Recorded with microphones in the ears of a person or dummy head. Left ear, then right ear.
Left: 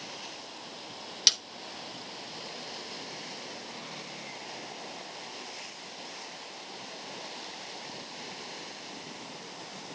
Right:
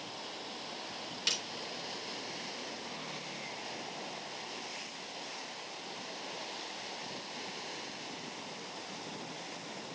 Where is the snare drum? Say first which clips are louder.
Left 9 dB; 35° left (ahead or behind), 0.7 m.